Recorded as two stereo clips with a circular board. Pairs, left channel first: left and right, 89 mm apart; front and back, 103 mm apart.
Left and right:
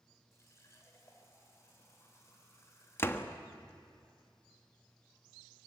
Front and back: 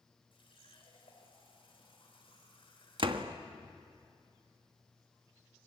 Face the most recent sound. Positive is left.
turn(degrees=150)